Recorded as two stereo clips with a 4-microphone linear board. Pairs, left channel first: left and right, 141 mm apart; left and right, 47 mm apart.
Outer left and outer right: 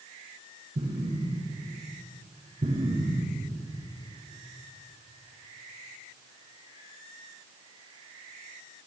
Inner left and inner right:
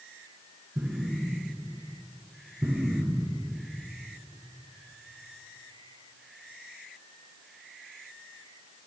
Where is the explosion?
70° right (ahead or behind), 6.5 m.